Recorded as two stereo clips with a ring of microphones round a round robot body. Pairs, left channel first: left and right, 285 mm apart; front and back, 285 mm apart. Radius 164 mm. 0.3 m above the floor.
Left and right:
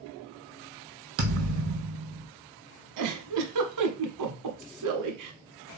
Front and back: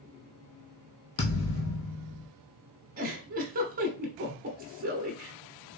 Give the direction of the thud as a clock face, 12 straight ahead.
2 o'clock.